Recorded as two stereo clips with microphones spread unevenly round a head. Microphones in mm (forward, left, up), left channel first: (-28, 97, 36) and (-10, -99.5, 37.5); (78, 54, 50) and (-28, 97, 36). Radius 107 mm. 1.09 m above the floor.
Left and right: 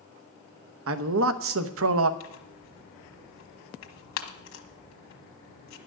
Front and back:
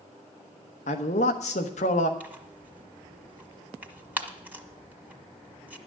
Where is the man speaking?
65° right, 0.9 m.